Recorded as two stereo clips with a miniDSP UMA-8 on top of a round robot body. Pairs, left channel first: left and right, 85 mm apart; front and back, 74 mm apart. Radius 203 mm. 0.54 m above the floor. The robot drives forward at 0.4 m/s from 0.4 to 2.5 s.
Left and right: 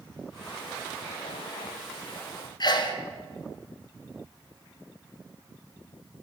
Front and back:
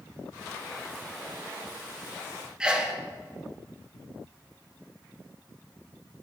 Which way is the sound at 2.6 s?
105° left.